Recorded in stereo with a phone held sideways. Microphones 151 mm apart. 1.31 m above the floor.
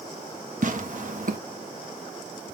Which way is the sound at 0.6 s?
60° right (ahead or behind).